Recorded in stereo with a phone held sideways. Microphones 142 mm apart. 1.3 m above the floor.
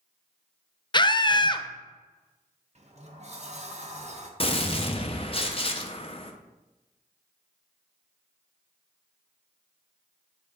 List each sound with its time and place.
0.9 s a scream: 30° left (ahead or behind), 0.6 m
2.8 s a sliding door: 45° right (ahead or behind), 0.9 m
4.4 s a gunshot: 40° left (ahead or behind), 0.7 m